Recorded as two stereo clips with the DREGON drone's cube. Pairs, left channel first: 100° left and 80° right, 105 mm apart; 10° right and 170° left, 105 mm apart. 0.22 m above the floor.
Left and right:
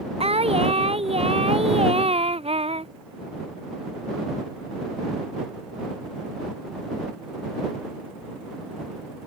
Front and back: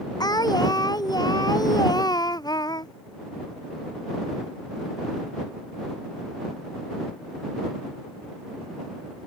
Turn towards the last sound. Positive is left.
turn(degrees=-60)